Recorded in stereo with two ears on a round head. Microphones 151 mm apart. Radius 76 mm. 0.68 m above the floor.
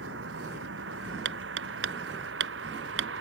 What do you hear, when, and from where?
0.0 s a vehicle: 85° right
1.2 s hammering: 85° right